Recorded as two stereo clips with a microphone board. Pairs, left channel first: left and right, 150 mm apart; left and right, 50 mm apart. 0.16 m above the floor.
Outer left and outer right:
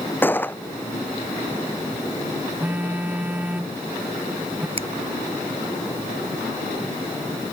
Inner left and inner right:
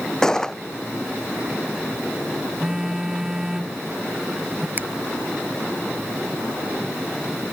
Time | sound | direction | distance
0.2 | a gunshot | 15° left (ahead or behind) | ?
2.6 | a phone buzzing | 10° right (ahead or behind) | ?
4.8 | a finger snap | 40° right (ahead or behind) | ?